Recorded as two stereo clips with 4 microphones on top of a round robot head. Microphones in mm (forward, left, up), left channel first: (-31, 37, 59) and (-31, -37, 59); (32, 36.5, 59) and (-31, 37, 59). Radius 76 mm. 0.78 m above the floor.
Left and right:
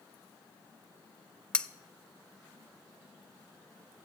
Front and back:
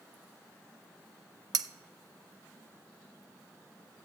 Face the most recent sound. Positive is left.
turn(degrees=170)